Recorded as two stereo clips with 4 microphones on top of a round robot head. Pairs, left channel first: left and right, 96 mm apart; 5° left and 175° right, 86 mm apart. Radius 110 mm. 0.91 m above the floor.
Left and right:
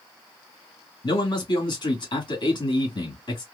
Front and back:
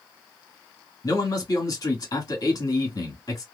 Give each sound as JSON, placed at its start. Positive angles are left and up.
{"t": 1.0, "sound": "a man speaking", "azimuth_deg": 50, "distance_m": 1.9}